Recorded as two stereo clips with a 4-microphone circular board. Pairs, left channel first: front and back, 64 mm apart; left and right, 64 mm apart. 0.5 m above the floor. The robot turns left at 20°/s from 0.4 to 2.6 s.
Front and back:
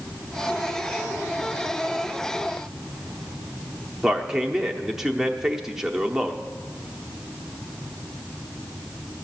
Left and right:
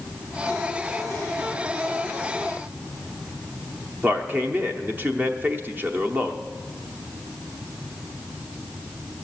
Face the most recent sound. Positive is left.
turn(degrees=-105)